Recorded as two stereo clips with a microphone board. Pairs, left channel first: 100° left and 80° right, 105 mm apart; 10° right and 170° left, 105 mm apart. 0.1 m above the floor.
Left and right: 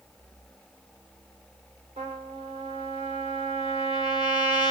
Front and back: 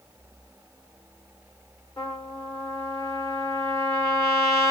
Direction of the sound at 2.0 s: 70° right.